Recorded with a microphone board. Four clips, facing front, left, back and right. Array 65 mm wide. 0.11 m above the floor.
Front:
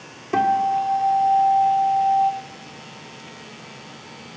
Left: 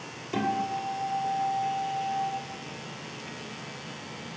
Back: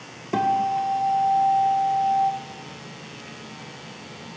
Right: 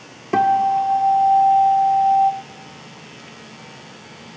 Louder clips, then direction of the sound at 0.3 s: Right 13 dB, front 3 dB; 90° right.